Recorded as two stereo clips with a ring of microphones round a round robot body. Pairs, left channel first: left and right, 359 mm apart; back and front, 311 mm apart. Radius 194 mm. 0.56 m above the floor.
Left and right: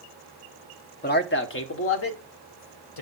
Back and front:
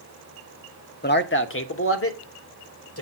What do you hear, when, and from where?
1.0 s a man speaking: 140° left, 1.4 m